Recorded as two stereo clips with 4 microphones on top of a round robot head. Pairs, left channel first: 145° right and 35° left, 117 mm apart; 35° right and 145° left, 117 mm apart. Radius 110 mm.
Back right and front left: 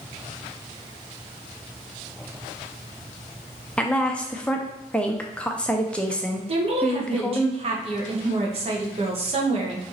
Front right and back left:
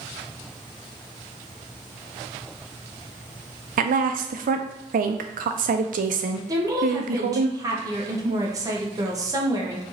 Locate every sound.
3.8 s a woman speaking: 135° left, 0.5 m
6.5 s a woman speaking: 80° left, 1.2 m